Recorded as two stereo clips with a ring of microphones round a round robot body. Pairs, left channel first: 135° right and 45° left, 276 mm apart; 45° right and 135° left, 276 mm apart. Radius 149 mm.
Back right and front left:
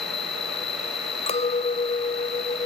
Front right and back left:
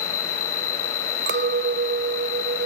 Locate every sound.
0.0 s an insect: 65° right
1.3 s a clink: 165° left